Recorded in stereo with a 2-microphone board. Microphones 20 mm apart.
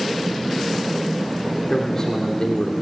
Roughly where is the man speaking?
Left.